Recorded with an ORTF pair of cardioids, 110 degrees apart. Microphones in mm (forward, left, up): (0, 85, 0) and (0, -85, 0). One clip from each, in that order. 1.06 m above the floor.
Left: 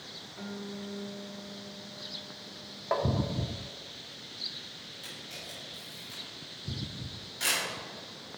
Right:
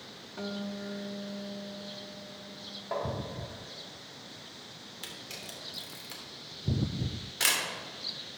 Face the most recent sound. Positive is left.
turn(degrees=-60)